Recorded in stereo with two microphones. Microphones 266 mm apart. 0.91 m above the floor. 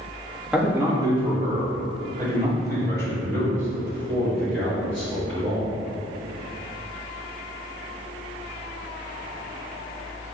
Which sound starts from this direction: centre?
A man speaking, at 0.5 s.